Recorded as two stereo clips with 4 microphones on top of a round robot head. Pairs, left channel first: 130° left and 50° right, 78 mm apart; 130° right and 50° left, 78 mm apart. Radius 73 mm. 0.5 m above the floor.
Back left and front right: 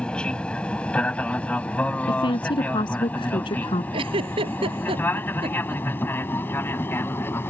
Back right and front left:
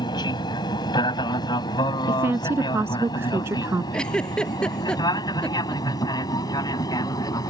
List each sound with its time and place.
0.0 s an aircraft: 155° right; by 7.5 s 170° right
2.1 s a woman speaking: 110° left
3.9 s a giggle: 50° right